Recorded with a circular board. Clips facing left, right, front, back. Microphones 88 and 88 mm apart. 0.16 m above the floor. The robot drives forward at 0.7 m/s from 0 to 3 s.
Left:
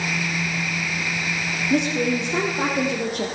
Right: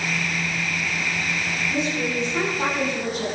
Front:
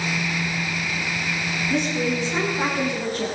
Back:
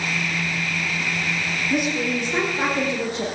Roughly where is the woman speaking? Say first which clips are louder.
Left 6 dB, even; left.